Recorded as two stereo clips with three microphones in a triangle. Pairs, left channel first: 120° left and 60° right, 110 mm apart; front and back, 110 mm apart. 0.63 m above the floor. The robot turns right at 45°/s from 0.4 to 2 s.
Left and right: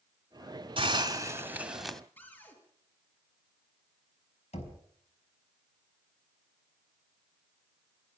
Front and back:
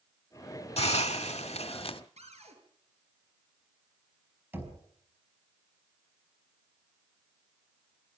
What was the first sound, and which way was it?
A hiss, 20° right.